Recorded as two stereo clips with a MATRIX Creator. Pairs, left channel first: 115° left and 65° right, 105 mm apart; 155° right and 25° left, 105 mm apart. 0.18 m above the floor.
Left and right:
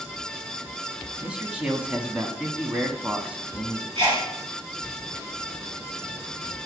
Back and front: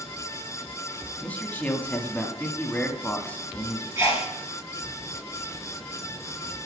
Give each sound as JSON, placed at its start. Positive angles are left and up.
{"t": 1.2, "sound": "a man speaking", "azimuth_deg": -120, "distance_m": 1.0}
{"t": 4.0, "sound": "a sneeze", "azimuth_deg": -35, "distance_m": 3.5}